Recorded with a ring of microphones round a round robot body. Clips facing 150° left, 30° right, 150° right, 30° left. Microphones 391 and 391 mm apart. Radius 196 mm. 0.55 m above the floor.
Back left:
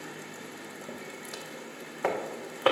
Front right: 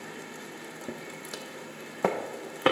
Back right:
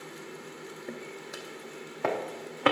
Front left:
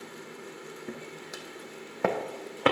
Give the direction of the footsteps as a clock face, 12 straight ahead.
1 o'clock.